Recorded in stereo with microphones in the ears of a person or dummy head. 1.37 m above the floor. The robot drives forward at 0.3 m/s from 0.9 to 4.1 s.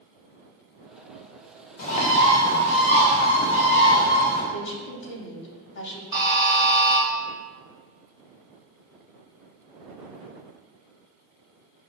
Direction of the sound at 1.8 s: 50° left (ahead or behind).